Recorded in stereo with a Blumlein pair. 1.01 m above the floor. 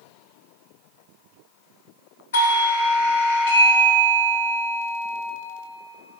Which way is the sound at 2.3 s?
65° left.